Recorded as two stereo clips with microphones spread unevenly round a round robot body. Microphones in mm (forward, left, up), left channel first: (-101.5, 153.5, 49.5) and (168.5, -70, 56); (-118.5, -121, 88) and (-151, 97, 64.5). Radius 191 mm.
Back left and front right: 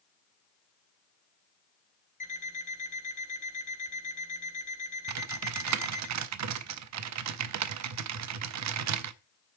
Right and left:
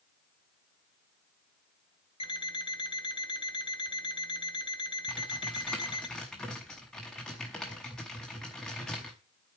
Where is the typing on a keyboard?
5° left, 0.6 m.